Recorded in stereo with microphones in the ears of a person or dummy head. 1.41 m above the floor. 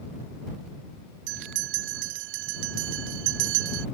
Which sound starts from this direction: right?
A bell, at 1.3 s.